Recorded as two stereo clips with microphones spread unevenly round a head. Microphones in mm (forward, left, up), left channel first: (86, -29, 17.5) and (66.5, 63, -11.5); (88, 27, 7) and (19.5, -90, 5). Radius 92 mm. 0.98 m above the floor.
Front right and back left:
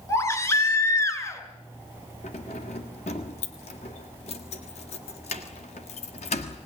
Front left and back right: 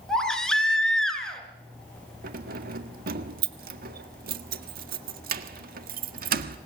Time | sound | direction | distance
0.1 | a baby crying | 25° right | 4.5 m
2.2 | keys jangling | 125° right | 1.6 m